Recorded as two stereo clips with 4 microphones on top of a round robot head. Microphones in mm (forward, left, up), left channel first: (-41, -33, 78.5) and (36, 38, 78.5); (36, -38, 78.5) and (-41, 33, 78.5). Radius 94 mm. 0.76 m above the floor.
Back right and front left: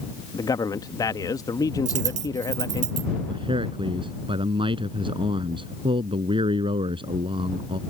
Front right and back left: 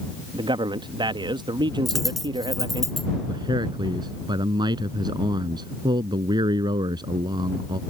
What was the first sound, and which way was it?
A man speaking, 175° left.